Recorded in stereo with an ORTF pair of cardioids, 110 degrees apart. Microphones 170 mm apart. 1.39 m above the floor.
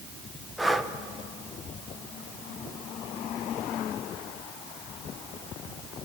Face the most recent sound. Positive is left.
turn(degrees=0)